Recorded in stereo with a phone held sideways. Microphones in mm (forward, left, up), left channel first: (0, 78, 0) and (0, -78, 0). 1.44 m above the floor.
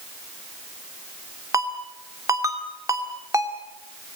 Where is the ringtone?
20° right (ahead or behind), 2.5 m.